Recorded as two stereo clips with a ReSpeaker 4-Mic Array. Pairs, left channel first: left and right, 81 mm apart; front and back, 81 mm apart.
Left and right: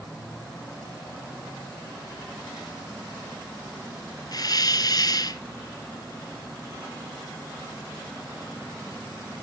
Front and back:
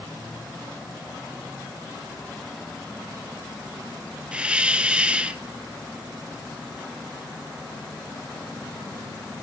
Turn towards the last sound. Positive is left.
turn(degrees=105)